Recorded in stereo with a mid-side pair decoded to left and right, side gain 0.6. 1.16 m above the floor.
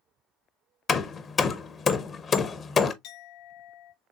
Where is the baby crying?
No baby crying in this recording.